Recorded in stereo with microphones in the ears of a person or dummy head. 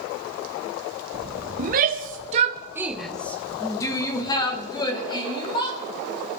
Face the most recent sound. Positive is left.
turn(degrees=25)  # may be behind; listen again after turning